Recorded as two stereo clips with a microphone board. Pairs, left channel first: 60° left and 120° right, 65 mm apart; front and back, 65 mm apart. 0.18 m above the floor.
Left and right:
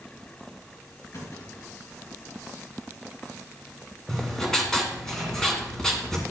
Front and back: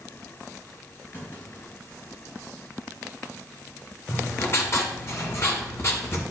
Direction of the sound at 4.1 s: 20° right.